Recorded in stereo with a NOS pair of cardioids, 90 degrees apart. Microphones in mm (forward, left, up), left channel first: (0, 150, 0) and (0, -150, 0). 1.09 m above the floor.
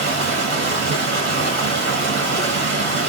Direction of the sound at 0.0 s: 55° right.